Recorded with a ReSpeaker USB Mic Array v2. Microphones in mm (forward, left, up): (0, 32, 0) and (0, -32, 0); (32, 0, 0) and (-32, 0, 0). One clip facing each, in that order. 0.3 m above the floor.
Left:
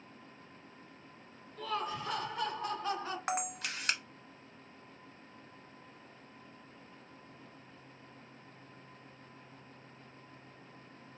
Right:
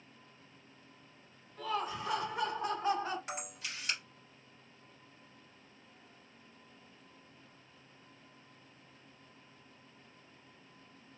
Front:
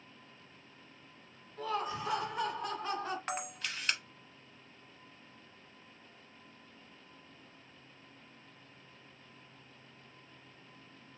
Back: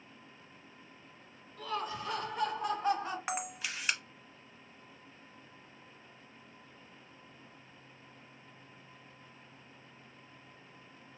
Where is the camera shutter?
100° left, 0.6 m.